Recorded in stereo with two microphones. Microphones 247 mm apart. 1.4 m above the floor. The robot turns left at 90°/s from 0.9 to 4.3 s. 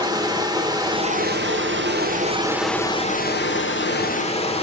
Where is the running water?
20° right, 1.4 m; by 4.6 s 30° left, 1.4 m.